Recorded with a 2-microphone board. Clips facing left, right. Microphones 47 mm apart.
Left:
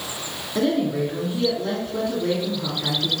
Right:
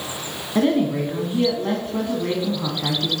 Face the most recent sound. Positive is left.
turn(degrees=-35)  # may be behind; listen again after turning